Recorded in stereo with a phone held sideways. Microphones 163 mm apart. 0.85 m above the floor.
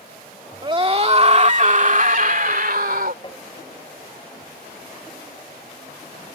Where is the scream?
30° right (ahead or behind); by 3.1 s 70° right (ahead or behind).